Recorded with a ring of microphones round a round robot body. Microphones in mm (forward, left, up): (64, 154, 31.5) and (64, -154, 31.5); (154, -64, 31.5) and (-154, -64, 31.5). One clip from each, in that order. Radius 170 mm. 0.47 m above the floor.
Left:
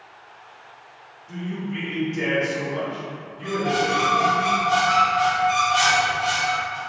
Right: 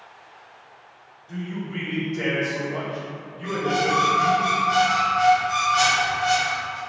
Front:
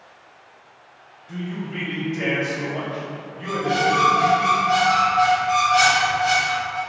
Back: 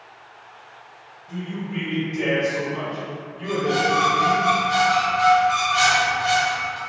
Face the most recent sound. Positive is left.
turn(degrees=55)